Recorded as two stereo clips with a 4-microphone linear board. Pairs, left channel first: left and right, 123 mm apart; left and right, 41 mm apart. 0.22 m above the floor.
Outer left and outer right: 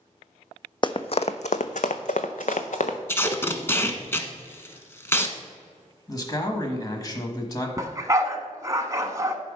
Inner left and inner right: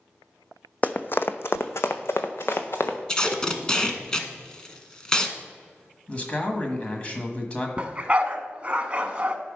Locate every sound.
0.8 s running footsteps: 40° left (ahead or behind), 0.5 m; by 3.0 s 70° left (ahead or behind), 1.2 m
3.1 s tape being pulled: 20° left (ahead or behind), 0.9 m
6.1 s a man speaking: 30° left (ahead or behind), 1.2 m
7.8 s a dog barking: 25° right (ahead or behind), 0.9 m